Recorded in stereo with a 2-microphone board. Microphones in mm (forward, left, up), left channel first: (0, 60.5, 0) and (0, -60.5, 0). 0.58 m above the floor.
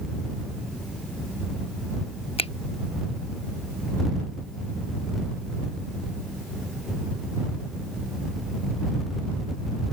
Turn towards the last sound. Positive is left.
turn(degrees=50)  # may be behind; listen again after turning